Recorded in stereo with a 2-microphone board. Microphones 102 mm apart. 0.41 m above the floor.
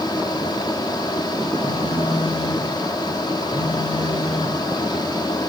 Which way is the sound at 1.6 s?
80° left.